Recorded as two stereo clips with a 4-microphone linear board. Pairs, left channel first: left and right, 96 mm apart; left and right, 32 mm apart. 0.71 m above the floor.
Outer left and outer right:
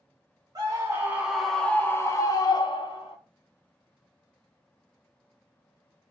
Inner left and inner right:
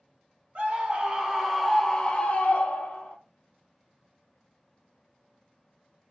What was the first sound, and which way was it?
A scream, 40° right (ahead or behind).